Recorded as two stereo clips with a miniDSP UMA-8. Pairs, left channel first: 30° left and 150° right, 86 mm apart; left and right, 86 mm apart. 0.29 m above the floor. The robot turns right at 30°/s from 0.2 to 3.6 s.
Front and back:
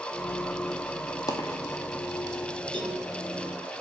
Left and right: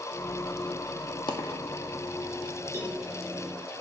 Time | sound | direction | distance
1.3 | a dropped coin | 75° left | 1.3 m
2.7 | a cowbell | 145° right | 3.5 m